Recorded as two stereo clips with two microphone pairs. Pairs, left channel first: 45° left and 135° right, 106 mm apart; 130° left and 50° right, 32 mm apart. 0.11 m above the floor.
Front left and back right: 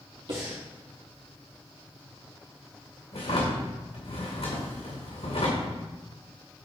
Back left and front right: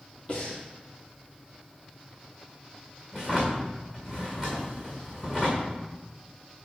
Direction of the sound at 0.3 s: 175° right.